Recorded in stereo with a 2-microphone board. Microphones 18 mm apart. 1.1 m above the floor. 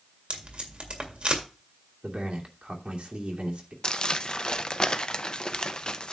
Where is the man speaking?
75° right (ahead or behind), 2.5 m.